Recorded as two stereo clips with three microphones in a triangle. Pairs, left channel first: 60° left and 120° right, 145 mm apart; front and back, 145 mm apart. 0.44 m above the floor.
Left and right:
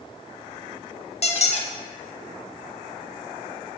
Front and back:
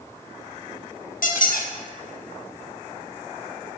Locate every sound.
1.2 s a squeak: 20° left, 0.6 m